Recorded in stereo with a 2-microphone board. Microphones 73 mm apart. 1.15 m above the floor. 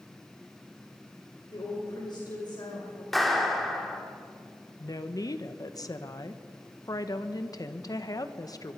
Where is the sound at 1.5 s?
85° left, 6 m.